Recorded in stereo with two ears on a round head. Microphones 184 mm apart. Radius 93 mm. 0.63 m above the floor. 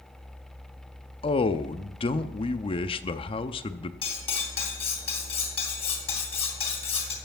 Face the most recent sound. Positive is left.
turn(degrees=30)  # may be behind; listen again after turning